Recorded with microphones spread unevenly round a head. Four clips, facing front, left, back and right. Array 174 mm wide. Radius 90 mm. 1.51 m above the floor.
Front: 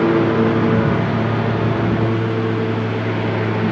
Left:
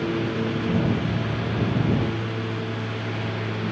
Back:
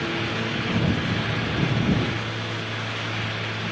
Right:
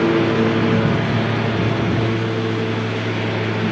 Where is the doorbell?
I don't hear a doorbell.